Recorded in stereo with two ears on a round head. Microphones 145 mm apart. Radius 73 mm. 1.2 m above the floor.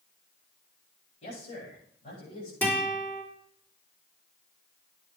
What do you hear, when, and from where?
1.2 s a man speaking: 45° left (ahead or behind), 9.5 m
2.6 s a guitar: 10° left (ahead or behind), 5.5 m